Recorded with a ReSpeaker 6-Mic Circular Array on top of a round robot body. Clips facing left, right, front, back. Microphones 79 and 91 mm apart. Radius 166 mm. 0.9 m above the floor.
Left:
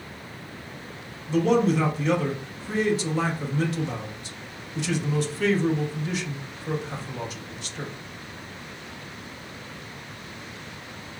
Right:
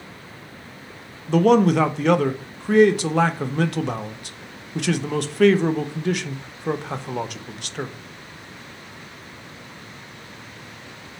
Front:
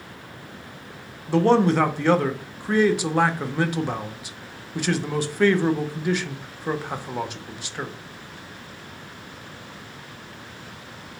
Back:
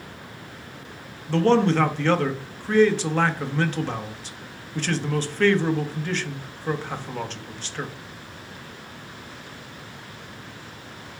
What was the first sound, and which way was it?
A man speaking, 75° right.